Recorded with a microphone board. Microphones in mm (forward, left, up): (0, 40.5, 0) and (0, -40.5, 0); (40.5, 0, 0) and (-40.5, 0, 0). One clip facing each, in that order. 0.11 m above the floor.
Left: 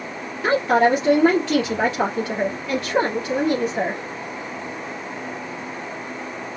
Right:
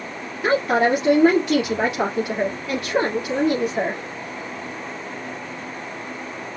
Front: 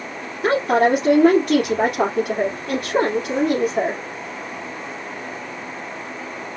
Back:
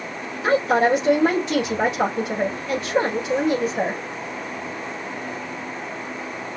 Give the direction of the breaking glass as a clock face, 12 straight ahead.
No breaking glass in this recording.